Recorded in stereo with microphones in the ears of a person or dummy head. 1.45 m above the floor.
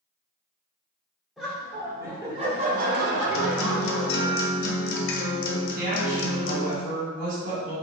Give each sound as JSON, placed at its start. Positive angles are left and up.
{"t": 1.4, "sound": "laughter", "side_deg": 0, "distance_m": 1.0}
{"t": 3.3, "sound": "a guitar", "side_deg": 55, "distance_m": 0.6}
{"t": 5.7, "sound": "a woman speaking", "side_deg": -55, "distance_m": 1.8}